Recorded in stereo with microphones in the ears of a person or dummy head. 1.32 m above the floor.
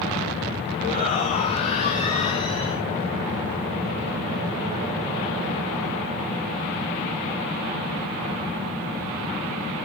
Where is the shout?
35° left (ahead or behind), 3 m; by 2.8 s 30° left (ahead or behind), 1.0 m.